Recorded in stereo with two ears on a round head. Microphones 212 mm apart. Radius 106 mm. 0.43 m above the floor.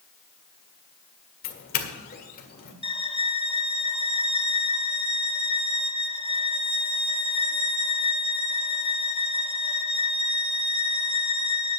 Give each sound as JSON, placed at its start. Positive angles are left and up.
{"t": 1.4, "sound": "a doorbell", "side_deg": 40, "distance_m": 1.9}
{"t": 2.8, "sound": "a violin", "side_deg": 25, "distance_m": 0.8}